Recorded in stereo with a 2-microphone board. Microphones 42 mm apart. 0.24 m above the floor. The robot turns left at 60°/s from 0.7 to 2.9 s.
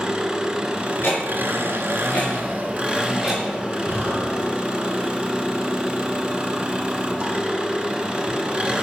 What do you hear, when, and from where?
0.0 s an engine running: 20° right, 1.2 m; by 8.8 s 155° right, 1.2 m
1.0 s ticking: 65° left (ahead or behind), 4 m; by 3.4 s centre (ahead or behind), 4 m
3.9 s breathing: 80° right, 4 m